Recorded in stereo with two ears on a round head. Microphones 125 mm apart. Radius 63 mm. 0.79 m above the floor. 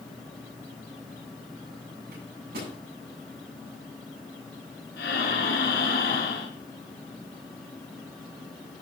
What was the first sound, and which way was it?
A microwave, 75° right (ahead or behind).